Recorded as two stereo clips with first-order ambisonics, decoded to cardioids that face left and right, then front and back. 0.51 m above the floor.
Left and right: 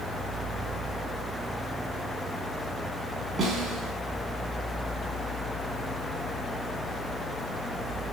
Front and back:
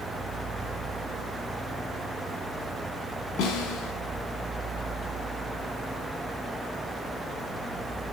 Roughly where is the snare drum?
Ahead right.